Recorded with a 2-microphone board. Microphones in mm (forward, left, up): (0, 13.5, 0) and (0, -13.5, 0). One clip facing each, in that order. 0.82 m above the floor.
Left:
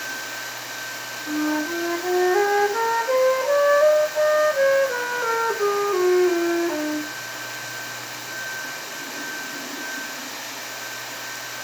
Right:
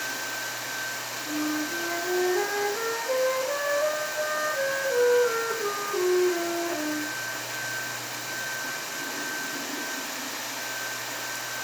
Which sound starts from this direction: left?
A flute, at 1.3 s.